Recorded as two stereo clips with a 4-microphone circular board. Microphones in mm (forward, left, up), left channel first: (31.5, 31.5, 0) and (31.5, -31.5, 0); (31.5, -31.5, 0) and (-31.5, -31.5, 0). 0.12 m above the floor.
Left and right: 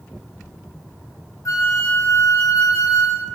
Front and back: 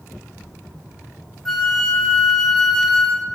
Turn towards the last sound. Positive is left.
turn(degrees=80)